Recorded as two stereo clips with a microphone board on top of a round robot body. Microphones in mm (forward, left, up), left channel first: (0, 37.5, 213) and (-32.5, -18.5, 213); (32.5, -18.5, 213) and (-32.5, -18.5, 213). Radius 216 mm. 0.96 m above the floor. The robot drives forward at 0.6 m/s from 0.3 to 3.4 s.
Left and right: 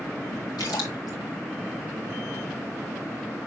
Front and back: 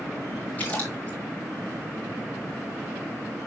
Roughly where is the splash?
Ahead left.